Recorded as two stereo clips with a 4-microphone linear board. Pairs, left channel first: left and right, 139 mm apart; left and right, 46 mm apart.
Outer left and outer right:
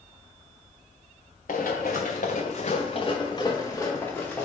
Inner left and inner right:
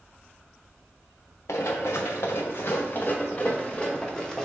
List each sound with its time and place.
1.5 s running footsteps: 80° left, 0.9 m; by 4.4 s 10° left (ahead or behind), 1.3 m